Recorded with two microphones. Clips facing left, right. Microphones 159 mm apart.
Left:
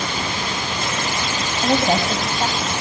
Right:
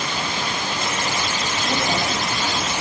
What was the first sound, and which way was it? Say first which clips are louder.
A woman speaking: left 7 dB; 50° left (ahead or behind).